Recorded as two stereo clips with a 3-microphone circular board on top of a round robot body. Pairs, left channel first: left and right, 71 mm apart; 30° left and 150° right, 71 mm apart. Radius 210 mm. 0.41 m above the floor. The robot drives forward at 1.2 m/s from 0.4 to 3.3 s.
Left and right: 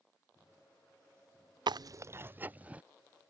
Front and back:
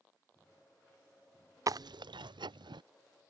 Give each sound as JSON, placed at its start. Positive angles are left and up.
{"t": 1.7, "sound": "chewing", "azimuth_deg": -105}